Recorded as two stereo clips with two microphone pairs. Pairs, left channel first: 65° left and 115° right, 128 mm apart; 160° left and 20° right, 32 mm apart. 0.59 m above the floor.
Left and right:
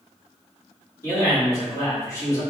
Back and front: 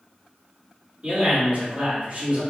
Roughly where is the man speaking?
Ahead.